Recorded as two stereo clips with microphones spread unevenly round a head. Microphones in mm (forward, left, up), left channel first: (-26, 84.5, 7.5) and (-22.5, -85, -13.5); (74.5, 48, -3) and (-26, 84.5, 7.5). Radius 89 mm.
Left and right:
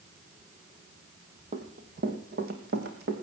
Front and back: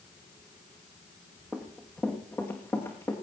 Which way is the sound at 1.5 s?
125° right.